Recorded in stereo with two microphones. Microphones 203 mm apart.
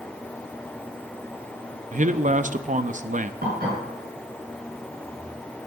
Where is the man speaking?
40° right (ahead or behind), 0.7 m.